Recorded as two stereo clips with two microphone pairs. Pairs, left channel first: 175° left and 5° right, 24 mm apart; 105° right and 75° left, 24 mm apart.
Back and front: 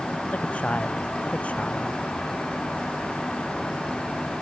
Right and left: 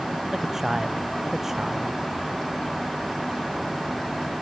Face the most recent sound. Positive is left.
turn(degrees=145)